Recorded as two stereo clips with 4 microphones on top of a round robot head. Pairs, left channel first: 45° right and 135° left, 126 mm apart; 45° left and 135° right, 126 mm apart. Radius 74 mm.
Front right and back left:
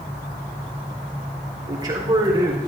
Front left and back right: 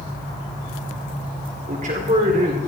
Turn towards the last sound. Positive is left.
turn(degrees=-165)